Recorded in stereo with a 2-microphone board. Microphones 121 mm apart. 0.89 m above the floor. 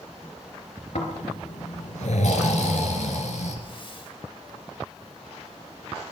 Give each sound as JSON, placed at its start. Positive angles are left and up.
{"t": 0.9, "sound": "snoring", "side_deg": 75, "distance_m": 3.0}
{"t": 3.6, "sound": "a hiss", "side_deg": 45, "distance_m": 4.0}